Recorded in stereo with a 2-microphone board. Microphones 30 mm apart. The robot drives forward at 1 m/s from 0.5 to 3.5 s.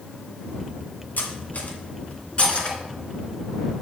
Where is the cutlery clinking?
70° left (ahead or behind), 1.8 m; by 2.8 s 35° left (ahead or behind), 3 m.